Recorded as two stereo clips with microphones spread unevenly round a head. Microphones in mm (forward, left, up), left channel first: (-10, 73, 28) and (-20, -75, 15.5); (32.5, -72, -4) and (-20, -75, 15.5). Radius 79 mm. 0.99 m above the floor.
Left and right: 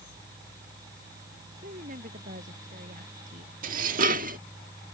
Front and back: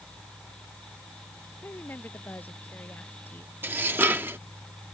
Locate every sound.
1.6 s a woman speaking: 50° right
3.6 s dishes clattering: 130° right